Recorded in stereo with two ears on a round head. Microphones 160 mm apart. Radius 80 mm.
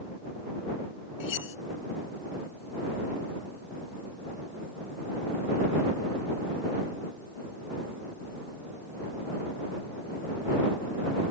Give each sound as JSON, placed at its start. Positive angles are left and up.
{"t": 1.2, "sound": "cutlery clinking", "side_deg": 85}